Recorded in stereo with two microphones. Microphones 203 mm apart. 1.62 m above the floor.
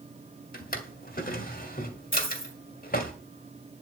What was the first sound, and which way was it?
A drawer, 45° left (ahead or behind).